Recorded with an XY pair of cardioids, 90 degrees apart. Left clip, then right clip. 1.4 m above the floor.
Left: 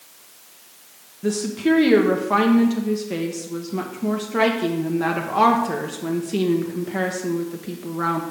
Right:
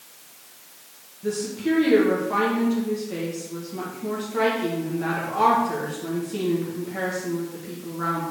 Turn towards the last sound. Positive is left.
turn(degrees=60)